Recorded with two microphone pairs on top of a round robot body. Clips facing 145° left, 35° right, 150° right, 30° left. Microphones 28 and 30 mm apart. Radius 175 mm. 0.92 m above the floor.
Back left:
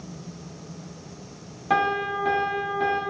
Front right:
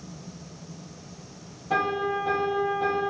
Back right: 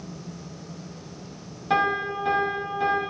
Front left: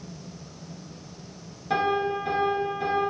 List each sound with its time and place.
1.7 s a piano: 145° left, 2.5 m